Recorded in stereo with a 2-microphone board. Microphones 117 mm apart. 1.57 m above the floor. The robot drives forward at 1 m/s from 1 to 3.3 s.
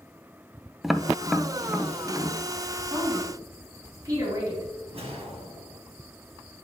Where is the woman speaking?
35° right (ahead or behind), 3 m; by 4.7 s 30° right (ahead or behind), 3.5 m.